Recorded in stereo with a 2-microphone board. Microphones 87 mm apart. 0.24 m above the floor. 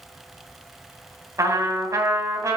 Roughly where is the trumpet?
Right.